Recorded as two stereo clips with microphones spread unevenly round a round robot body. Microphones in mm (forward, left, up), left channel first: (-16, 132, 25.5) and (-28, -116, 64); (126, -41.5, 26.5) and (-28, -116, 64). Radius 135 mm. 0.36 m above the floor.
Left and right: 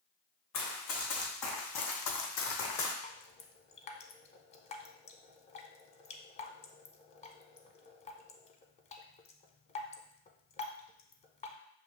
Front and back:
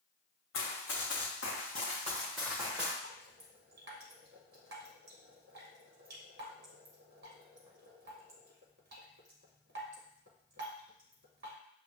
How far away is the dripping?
About 0.5 m.